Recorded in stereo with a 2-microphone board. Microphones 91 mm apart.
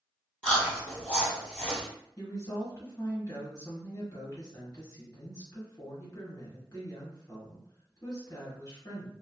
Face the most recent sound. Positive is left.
turn(degrees=35)  # may be behind; listen again after turning